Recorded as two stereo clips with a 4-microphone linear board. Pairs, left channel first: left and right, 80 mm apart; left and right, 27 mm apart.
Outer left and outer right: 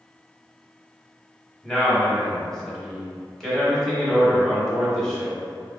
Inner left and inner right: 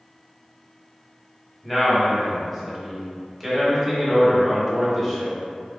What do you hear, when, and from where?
1.6 s a man speaking: 5° left (ahead or behind), 1.3 m